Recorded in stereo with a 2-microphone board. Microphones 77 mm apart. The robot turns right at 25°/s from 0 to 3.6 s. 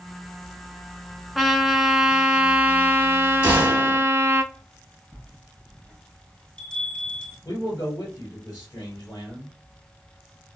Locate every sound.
1.4 s a trumpet: straight behind, 0.5 m; by 4.4 s 120° right, 0.5 m
3.4 s a gunshot: 20° right (ahead or behind), 1.8 m
5.1 s a bell: 15° left (ahead or behind), 1.8 m
7.5 s a man speaking: 45° left (ahead or behind), 1.7 m